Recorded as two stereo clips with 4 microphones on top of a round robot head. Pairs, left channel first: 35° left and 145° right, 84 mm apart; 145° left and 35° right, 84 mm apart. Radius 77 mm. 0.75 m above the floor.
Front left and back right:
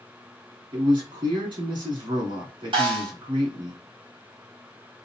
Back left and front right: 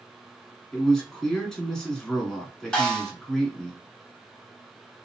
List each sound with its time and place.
0.7 s a man speaking: 140° right, 2 m
2.7 s a snare drum: 135° right, 1.6 m